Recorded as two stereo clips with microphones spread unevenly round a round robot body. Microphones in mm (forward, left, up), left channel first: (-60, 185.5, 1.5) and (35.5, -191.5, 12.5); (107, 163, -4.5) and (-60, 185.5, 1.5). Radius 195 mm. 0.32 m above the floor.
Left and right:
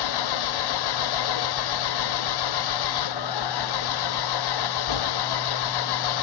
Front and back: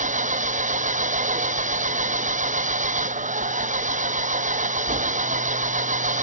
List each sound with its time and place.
0.0 s an engine running: 130° left